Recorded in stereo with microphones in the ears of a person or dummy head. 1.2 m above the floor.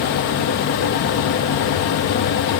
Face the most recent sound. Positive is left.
No sound to turn to.